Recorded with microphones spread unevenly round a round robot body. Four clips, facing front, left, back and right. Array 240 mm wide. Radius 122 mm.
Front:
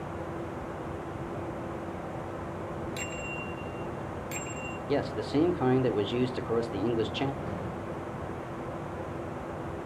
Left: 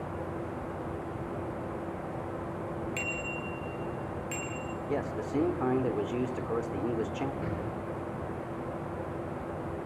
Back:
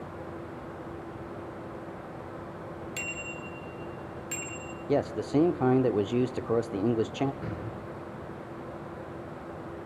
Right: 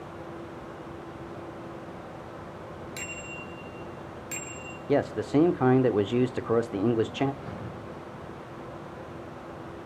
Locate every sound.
3.0 s a bicycle bell: 135° right, 3.5 m
4.9 s a man speaking: 105° right, 1.0 m
7.4 s an explosion: 140° left, 9 m